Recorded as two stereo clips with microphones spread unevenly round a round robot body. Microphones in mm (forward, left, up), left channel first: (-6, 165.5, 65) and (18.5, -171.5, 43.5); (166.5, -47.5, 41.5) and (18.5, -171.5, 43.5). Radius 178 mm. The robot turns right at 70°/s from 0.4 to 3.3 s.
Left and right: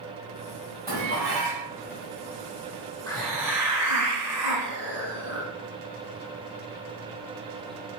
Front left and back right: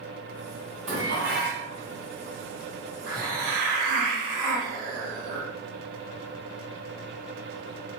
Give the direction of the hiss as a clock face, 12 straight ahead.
6 o'clock.